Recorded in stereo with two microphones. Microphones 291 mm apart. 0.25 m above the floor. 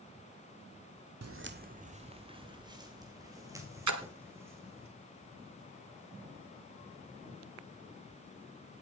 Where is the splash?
75° right (ahead or behind), 1.2 m.